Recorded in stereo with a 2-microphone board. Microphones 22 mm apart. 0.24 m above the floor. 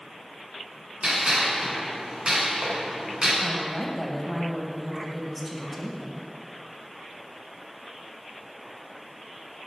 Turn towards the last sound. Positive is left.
turn(degrees=-5)  # may be behind; listen again after turning